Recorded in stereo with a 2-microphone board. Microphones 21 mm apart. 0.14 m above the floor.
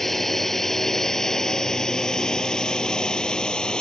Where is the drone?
10° left (ahead or behind); by 3.8 s 35° left (ahead or behind).